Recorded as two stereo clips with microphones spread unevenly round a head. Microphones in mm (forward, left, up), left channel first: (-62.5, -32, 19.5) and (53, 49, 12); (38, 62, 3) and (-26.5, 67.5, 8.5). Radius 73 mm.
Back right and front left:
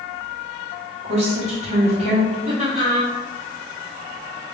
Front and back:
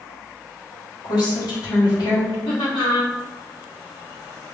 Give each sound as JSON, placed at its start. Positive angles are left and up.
{"t": 1.0, "sound": "a woman speaking", "azimuth_deg": -10, "distance_m": 1.6}
{"t": 2.5, "sound": "laughter", "azimuth_deg": -20, "distance_m": 1.4}